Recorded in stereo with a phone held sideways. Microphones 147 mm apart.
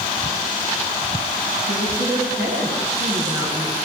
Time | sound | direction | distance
1.7 | a woman speaking | 75° left (ahead or behind) | 9 m